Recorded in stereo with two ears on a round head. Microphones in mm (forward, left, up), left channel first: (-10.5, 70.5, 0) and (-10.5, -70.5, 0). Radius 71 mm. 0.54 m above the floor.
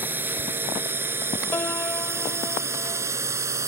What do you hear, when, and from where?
0.0 s a drone: 10° right (ahead or behind); by 3.7 s 20° right (ahead or behind)
1.5 s a piano: 15° left (ahead or behind)